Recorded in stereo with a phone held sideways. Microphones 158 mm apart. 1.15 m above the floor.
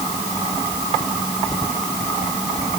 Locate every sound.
Only background noise.